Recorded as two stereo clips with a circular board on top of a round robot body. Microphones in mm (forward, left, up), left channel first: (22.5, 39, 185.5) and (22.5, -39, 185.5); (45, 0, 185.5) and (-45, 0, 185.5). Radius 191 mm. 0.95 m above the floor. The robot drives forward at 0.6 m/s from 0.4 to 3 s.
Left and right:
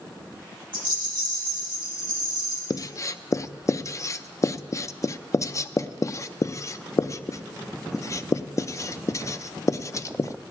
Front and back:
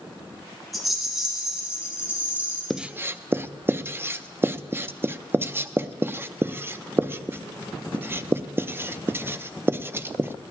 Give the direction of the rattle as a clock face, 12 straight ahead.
3 o'clock.